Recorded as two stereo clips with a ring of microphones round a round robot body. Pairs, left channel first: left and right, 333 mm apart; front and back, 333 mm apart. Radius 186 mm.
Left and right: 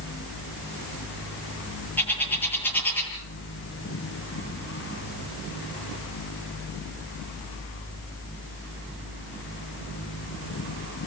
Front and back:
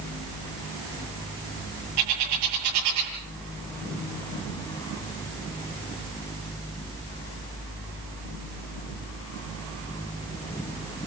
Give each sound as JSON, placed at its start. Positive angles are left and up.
{"t": 2.0, "sound": "a bird", "azimuth_deg": 175, "distance_m": 9.5}